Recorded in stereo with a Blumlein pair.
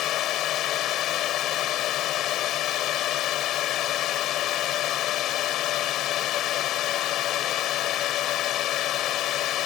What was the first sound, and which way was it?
A drone, 35° left.